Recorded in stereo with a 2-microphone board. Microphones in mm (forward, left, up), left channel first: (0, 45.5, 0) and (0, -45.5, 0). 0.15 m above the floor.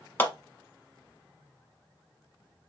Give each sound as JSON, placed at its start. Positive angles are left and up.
{"t": 0.2, "sound": "a clap", "side_deg": 20, "distance_m": 0.8}